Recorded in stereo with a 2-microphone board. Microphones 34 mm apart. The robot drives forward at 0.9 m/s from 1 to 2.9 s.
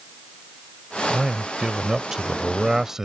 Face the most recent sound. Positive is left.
turn(degrees=-15)  # may be behind; listen again after turning